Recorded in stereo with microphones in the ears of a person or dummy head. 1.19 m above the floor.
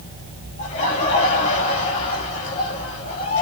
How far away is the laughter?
About 2.5 m.